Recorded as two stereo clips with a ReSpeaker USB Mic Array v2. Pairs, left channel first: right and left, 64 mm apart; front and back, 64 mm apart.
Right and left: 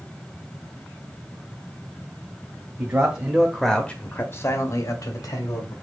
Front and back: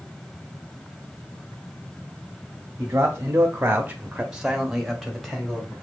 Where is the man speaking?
140° left, 1.1 m; by 5.7 s 80° right, 1.8 m.